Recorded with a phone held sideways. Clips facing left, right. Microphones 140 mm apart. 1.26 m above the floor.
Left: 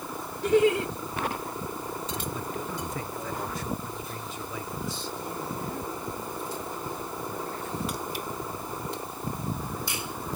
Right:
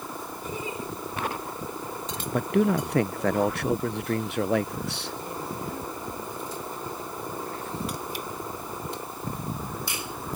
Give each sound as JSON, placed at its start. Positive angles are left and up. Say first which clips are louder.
{"t": 0.4, "sound": "laughter", "louder": "left 14 dB", "side_deg": 80}
{"t": 2.3, "sound": "a man speaking", "louder": "right 11 dB", "side_deg": -70}